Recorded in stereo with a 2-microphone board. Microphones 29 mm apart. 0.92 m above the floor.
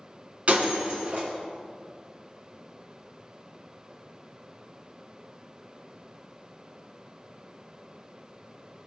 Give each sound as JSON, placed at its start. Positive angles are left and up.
{"t": 0.5, "sound": "breaking glass", "side_deg": -50, "distance_m": 2.5}